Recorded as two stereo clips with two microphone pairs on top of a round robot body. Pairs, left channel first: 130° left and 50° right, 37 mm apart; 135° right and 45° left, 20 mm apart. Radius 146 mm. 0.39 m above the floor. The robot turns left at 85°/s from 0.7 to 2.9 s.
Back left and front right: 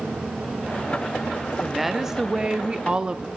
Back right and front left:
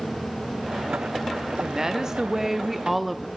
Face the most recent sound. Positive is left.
turn(degrees=-60)